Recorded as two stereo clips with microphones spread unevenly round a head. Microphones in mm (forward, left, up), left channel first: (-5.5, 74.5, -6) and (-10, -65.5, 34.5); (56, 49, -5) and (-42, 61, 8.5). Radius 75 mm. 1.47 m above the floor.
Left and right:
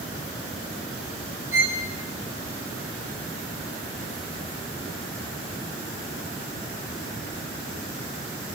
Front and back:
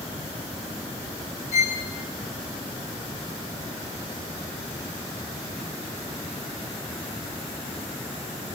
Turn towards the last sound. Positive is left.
turn(degrees=-20)